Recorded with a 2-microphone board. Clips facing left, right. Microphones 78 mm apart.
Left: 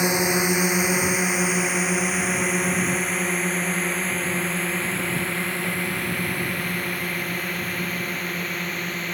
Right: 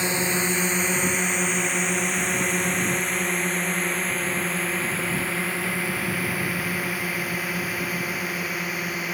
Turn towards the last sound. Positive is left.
turn(degrees=-5)  # may be behind; listen again after turning